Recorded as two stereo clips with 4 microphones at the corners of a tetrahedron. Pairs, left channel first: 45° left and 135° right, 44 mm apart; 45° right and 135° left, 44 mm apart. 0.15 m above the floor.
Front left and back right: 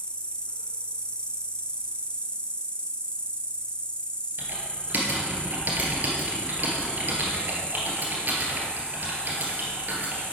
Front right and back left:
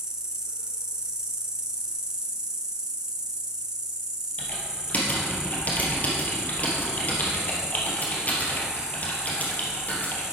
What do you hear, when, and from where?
0.0 s an insect: 75° left, 1.3 m
4.4 s typing on a keyboard: 95° right, 2.5 m